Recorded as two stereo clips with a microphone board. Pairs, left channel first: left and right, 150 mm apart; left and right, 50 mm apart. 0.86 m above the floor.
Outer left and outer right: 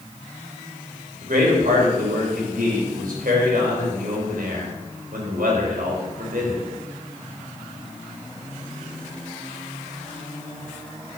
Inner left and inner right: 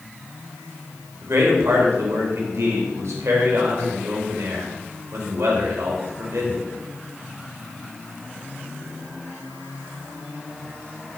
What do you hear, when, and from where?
1.2 s a man speaking: 75° right (ahead or behind), 3.5 m